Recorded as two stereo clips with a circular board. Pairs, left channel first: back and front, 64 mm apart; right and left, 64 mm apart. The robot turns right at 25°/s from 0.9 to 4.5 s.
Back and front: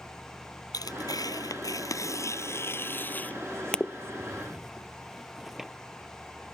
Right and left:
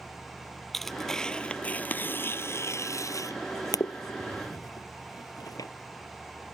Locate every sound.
0.7 s tearing paper: 175° right; by 5.7 s 85° right